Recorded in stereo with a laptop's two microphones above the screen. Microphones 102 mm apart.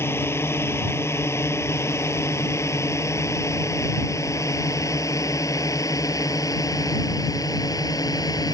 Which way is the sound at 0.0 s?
25° left (ahead or behind).